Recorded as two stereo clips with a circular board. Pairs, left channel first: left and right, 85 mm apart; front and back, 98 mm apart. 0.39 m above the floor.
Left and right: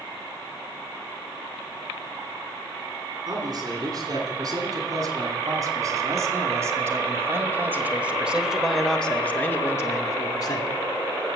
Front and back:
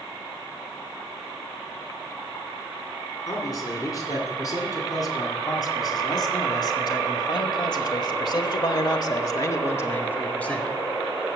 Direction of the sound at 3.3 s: 50° right.